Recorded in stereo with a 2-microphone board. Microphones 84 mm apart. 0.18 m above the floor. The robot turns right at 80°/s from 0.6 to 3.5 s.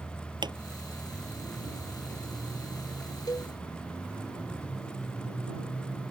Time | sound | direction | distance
0.4 | a pop | 70° right (ahead or behind) | ?
3.3 | a cowbell | 55° left (ahead or behind) | ?